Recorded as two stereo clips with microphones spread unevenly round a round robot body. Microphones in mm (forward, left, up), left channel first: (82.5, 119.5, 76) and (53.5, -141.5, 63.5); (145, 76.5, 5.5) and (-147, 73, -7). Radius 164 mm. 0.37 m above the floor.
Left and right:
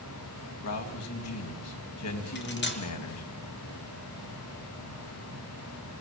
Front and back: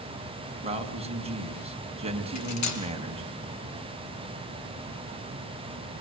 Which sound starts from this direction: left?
A man speaking, at 0.6 s.